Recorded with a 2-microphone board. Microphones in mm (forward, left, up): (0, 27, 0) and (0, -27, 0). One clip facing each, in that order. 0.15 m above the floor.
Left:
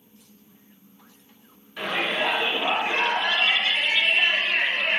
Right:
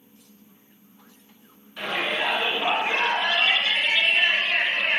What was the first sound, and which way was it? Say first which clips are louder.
A shout: left 1 dB; 10° left (ahead or behind).